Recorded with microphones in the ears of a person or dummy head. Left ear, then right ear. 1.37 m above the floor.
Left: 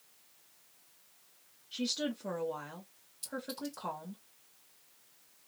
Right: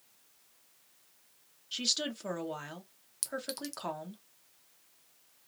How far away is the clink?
About 0.5 m.